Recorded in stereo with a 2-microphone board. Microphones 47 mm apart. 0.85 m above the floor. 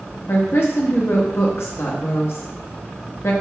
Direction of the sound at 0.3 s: 65° left (ahead or behind).